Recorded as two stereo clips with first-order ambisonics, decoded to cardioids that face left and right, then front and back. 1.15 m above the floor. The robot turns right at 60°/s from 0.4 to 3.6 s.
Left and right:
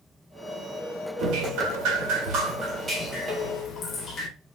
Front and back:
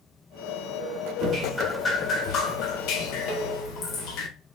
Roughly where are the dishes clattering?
Ahead right.